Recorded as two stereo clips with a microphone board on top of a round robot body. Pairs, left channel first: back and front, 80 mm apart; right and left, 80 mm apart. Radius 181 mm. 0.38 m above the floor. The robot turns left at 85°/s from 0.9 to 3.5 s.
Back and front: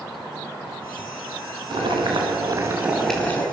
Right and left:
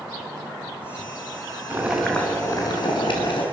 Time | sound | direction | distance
1.7 | boiling | 25° left | 5 m